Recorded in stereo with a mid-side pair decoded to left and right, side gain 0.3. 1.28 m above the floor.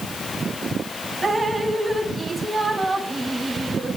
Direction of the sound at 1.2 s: 35° right.